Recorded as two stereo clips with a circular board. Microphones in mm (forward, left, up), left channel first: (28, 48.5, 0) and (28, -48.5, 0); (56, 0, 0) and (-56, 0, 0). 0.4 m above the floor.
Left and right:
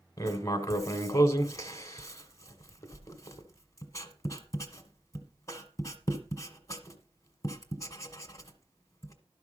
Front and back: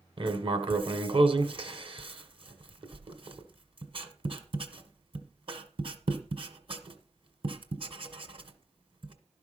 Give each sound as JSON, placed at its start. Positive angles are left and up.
{"t": 0.2, "sound": "writing", "azimuth_deg": 145, "distance_m": 1.4}